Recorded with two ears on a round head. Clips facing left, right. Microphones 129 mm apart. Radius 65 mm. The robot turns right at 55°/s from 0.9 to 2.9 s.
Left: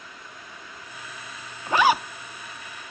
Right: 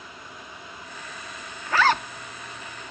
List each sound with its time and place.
1.7 s a zipper: 25° left (ahead or behind); by 2.0 s centre (ahead or behind)